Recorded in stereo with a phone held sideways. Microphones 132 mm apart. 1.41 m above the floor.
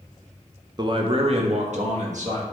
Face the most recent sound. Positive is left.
turn(degrees=-65)  # may be behind; listen again after turning